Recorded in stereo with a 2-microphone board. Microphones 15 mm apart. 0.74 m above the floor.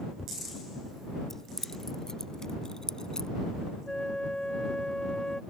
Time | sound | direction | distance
1.3 | keys jangling | 25° left (ahead or behind) | ?
3.9 | a flute | 45° left (ahead or behind) | ?